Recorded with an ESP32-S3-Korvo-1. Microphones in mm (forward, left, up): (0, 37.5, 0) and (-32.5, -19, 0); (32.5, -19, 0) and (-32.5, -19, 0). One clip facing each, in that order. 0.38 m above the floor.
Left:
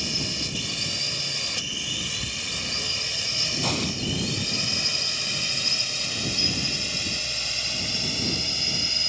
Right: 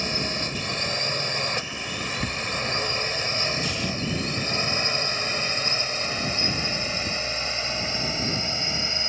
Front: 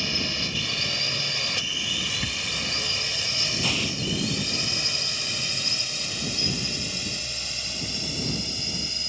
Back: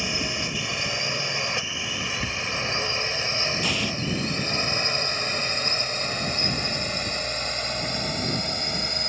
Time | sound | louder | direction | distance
0.0 | a drone | right 4 dB, back 1 dB | 120° right | ?
2.0 | a bird | right 6 dB, back 3 dB | 95° right | ?
3.6 | an explosion | left 1 dB, back 1 dB | 90° left | ?